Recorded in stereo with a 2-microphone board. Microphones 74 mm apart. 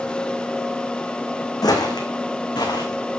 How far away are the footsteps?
About 1.9 m.